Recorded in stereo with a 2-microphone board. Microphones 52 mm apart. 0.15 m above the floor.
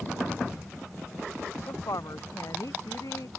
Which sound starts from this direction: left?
A woman speaking, at 1.7 s.